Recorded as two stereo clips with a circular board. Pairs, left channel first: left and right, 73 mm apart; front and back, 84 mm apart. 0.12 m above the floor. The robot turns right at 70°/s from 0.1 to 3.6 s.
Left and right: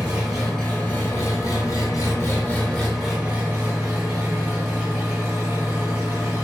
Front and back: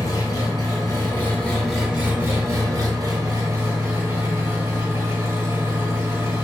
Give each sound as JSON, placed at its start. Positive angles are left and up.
{"t": 0.0, "sound": "an engine running", "azimuth_deg": -25, "distance_m": 1.7}